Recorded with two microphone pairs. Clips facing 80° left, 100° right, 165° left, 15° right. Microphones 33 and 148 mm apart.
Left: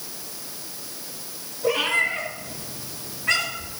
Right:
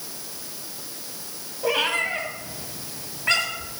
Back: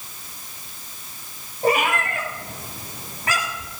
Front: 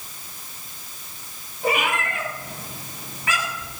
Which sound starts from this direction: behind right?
A cat meowing, at 1.6 s.